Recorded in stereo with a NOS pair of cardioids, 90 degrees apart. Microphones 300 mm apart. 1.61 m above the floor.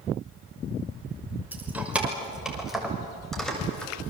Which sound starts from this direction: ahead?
Keys jangling, at 1.5 s.